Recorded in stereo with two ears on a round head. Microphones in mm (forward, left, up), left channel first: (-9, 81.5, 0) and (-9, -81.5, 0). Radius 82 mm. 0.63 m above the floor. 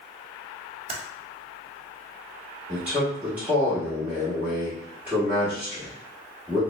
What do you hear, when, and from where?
0.9 s typing on a keyboard: 30° right (ahead or behind), 0.5 m
2.7 s a man speaking: 10° right (ahead or behind), 1.4 m